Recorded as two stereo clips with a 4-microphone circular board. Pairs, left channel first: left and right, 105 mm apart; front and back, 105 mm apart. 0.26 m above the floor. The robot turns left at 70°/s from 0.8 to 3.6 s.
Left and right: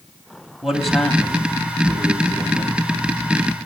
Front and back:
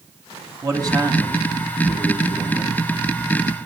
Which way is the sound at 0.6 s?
175° right.